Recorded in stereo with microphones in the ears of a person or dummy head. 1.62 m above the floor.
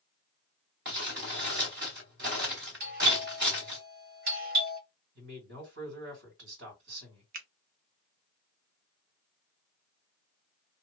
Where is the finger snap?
50° right (ahead or behind), 0.6 m.